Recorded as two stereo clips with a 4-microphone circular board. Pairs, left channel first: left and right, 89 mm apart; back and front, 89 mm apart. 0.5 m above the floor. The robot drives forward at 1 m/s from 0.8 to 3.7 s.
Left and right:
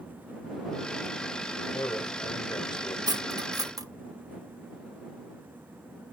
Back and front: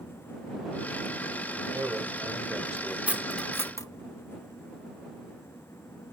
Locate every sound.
1.7 s a man speaking: 55° left, 2.5 m; by 3.0 s 85° left, 2 m
3.1 s cutlery clinking: 70° right, 0.7 m; by 3.9 s 130° right, 0.8 m